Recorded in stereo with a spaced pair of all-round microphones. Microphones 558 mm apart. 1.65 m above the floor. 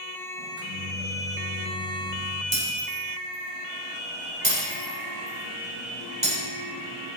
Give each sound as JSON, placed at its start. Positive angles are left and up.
{"t": 0.4, "sound": "a microwave", "side_deg": -25, "distance_m": 6.0}
{"t": 2.5, "sound": "breaking glass", "side_deg": -65, "distance_m": 5.5}